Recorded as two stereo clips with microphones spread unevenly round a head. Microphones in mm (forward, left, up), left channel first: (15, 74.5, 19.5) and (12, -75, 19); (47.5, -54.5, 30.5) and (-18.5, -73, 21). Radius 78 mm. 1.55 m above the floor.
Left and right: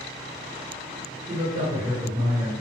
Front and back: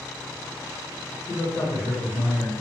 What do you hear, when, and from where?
1.3 s a man speaking: 30° right, 1.1 m